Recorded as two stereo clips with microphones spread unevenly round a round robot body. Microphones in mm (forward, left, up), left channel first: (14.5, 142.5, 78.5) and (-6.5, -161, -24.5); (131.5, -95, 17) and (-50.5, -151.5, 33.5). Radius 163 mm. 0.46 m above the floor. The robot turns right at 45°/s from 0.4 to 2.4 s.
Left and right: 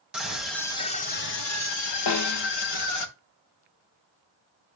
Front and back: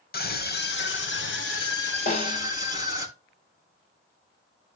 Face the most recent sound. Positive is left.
turn(degrees=60)